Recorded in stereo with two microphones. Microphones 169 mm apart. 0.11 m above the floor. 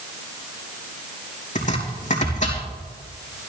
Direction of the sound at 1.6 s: 45° left (ahead or behind).